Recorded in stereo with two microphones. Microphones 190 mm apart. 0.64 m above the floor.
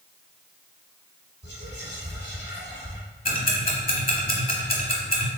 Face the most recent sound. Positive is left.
turn(degrees=45)  # may be behind; listen again after turning